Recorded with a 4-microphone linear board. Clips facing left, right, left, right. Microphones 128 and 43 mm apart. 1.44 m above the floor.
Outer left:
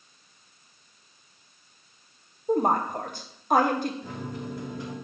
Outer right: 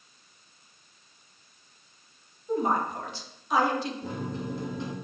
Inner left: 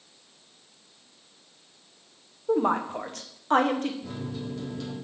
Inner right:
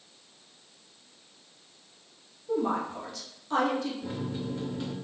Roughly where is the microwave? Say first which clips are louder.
Outer right 2 dB, inner right 1 dB; right.